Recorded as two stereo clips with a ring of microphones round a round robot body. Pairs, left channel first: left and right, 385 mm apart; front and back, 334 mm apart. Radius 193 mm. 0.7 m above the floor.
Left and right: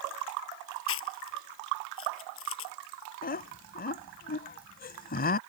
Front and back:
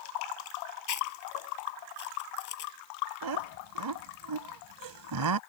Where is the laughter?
160° left.